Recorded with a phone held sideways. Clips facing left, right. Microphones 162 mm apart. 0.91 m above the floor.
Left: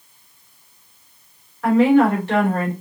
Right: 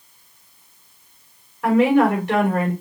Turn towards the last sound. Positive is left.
turn(degrees=-15)  # may be behind; listen again after turning